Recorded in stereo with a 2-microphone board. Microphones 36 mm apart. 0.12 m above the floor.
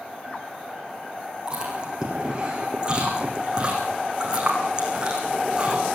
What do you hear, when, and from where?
1.5 s chewing: 25° right (ahead or behind), 7 m